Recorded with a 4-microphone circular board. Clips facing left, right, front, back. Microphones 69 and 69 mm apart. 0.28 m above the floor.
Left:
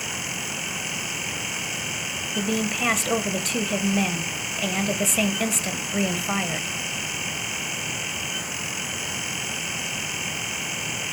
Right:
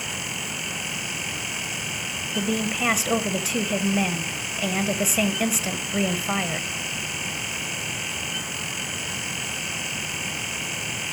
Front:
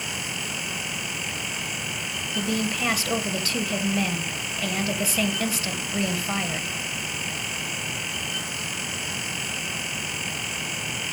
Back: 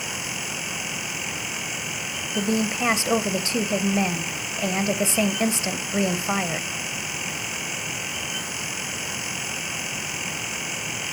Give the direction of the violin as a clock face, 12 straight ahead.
No violin in this recording.